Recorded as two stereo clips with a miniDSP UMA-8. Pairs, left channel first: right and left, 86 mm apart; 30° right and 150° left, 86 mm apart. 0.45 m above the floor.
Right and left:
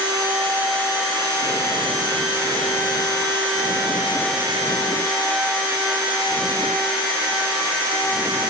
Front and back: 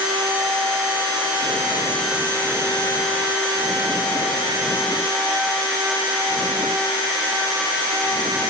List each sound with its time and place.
Only background noise.